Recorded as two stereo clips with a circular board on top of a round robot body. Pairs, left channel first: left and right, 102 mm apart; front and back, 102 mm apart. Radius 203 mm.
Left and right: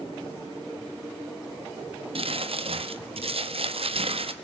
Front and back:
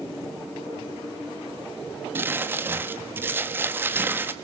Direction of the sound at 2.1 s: 110° right.